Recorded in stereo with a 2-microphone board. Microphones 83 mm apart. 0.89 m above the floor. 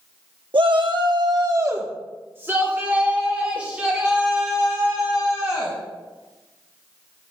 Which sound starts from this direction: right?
A shout, at 0.5 s.